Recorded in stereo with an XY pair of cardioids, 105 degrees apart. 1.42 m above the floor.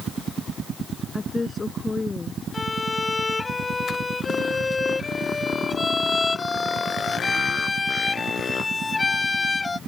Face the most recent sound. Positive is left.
turn(degrees=25)